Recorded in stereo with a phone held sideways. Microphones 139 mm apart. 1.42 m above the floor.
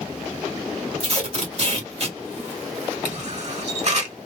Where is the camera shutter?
55° right (ahead or behind), 1.3 m.